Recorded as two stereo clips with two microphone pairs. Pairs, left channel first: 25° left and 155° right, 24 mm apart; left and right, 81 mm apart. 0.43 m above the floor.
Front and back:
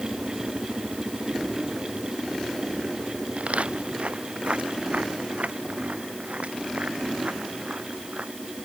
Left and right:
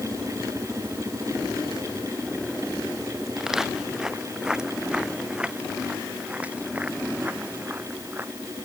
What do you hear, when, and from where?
3.4 s footsteps: 175° right; by 8.3 s 155° right